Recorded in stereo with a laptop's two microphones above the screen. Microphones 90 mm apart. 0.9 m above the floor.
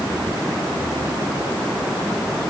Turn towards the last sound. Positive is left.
No sound to turn to.